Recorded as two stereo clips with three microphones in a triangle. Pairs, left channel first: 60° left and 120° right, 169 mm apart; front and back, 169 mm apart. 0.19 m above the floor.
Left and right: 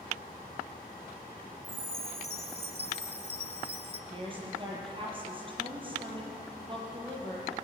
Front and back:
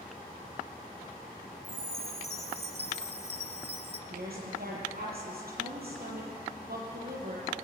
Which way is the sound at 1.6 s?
150° right.